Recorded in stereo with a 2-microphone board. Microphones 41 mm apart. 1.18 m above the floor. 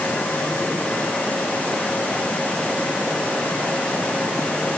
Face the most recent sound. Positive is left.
No sound to turn to.